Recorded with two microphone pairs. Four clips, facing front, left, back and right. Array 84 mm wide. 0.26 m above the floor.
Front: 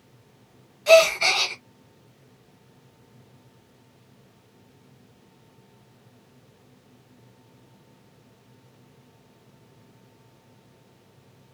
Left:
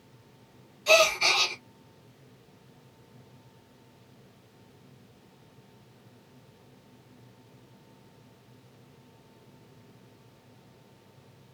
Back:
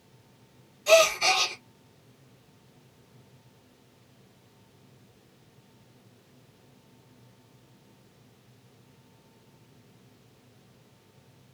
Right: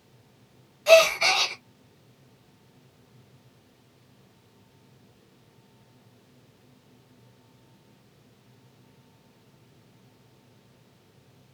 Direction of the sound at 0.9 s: 50° right.